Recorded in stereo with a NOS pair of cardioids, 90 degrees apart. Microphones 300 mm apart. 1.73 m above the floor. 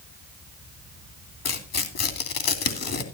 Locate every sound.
1.4 s tearing paper: 55° left, 3 m